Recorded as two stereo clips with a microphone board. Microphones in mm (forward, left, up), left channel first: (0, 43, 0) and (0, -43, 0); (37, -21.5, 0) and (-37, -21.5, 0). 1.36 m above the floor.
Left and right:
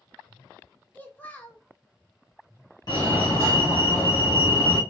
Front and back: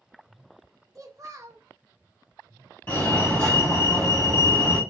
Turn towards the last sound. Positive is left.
turn(degrees=60)